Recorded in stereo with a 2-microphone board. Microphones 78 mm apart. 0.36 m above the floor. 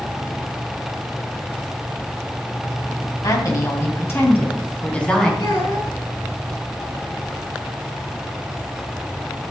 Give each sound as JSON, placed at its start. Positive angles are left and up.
{"t": 3.2, "sound": "a woman speaking", "side_deg": 50, "distance_m": 3.0}
{"t": 5.4, "sound": "a child speaking", "side_deg": 65, "distance_m": 2.5}